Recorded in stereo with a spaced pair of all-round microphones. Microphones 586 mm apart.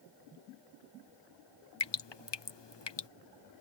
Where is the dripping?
45° left (ahead or behind).